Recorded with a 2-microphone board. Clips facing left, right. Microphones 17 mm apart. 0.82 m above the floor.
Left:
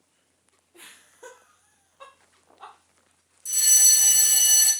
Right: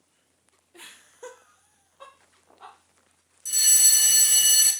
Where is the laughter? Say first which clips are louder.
Right 2 dB; 45° right (ahead or behind), 0.7 m; by 2.8 s 30° left (ahead or behind), 1.2 m.